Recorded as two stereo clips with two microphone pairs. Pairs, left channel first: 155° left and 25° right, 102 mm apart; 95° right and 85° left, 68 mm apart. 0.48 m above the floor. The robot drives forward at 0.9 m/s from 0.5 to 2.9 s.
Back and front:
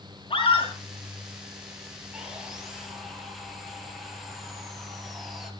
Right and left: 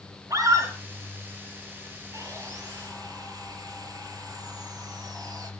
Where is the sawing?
55° left, 4.5 m; by 5.5 s 60° left, 4 m.